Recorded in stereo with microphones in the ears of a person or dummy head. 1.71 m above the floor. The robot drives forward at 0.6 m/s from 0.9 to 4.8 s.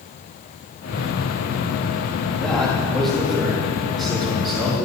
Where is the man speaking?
5° left (ahead or behind), 4 m; by 4.8 s centre (ahead or behind), 5.5 m.